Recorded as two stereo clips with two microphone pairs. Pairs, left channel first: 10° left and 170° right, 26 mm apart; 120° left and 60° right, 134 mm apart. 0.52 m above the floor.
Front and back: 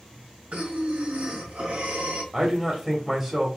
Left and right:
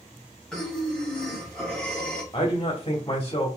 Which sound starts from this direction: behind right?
Breathing, at 0.5 s.